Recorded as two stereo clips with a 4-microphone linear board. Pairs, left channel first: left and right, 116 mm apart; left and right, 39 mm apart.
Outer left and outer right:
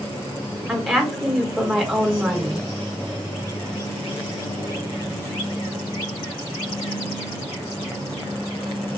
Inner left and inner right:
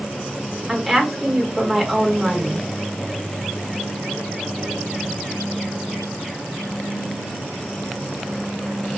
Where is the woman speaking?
5° right (ahead or behind), 1.8 m.